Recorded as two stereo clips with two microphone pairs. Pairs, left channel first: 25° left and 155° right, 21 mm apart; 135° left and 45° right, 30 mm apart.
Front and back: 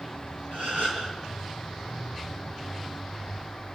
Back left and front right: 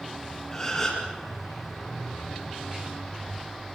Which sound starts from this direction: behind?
A gasp, at 0.5 s.